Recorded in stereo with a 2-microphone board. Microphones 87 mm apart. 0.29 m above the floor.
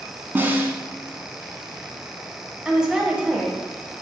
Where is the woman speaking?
10° right (ahead or behind), 0.9 m.